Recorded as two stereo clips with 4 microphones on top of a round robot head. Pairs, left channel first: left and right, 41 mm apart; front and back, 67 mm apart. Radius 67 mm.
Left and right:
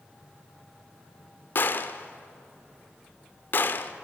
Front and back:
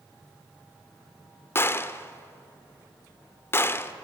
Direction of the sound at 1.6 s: 55° left.